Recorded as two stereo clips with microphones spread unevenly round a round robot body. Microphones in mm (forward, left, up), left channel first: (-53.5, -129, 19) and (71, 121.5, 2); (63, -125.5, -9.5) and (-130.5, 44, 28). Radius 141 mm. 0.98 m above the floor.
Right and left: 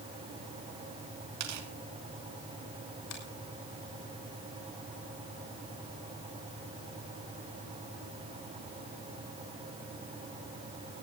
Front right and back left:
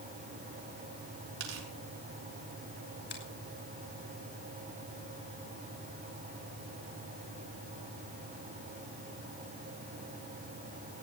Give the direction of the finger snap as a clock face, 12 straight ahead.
3 o'clock.